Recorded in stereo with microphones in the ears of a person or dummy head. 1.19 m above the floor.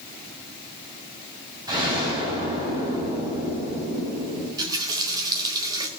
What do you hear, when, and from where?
1.7 s an explosion: 20° right (ahead or behind), 6 m
4.6 s a running tap: 20° right (ahead or behind), 2 m